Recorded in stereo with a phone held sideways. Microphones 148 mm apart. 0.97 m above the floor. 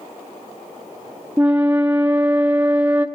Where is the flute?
10° right (ahead or behind), 0.6 m.